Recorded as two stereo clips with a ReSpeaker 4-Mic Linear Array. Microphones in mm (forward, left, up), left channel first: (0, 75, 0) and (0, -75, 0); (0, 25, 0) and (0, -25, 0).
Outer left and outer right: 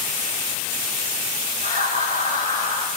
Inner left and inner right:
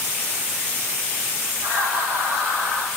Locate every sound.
1.6 s laughter: 50° right (ahead or behind), 8 m; by 2.9 s 45° right (ahead or behind), 9 m